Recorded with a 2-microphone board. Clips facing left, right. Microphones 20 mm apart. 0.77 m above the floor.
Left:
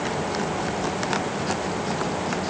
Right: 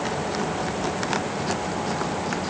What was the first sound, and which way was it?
Only background noise.